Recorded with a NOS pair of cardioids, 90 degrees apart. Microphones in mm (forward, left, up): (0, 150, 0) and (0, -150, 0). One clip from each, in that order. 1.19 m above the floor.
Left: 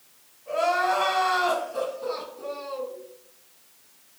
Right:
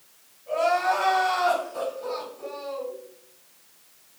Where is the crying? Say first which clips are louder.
Right 1 dB; 35° left, 1.7 m.